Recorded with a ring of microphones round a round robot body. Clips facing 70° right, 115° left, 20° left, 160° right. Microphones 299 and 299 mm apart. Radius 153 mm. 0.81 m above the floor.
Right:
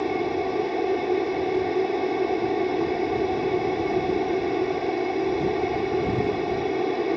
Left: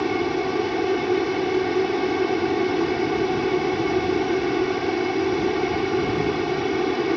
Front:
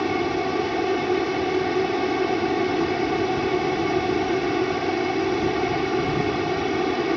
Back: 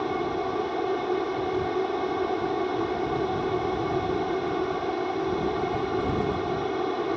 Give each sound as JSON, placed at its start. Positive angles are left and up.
{"t": 0.0, "sound": "an aircraft", "azimuth_deg": 55}